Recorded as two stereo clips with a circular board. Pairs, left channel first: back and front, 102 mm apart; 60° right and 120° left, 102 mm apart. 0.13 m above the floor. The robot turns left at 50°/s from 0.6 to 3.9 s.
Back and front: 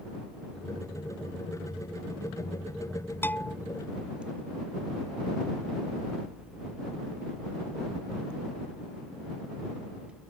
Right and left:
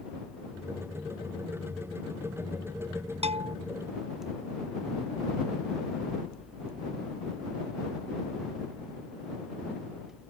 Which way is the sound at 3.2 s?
110° left.